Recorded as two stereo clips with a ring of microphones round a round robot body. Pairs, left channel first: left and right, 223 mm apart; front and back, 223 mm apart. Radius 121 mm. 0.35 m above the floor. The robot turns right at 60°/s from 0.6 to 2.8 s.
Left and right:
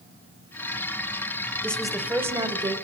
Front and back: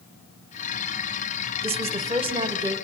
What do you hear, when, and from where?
1.6 s a woman speaking: 165° left, 1.0 m; by 2.8 s 125° right, 1.0 m